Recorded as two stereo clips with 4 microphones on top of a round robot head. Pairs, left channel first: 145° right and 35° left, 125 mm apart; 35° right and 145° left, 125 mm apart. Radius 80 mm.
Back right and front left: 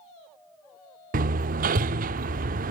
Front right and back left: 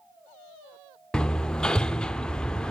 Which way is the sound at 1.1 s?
50° left.